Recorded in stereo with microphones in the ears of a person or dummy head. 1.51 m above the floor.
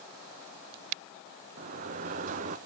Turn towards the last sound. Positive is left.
turn(degrees=-40)  # may be behind; listen again after turning